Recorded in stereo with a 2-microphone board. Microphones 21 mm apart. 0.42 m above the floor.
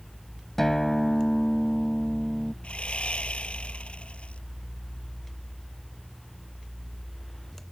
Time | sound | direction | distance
0.6 | a guitar | 15° left (ahead or behind) | ?
2.6 | sawing | 60° left (ahead or behind) | ?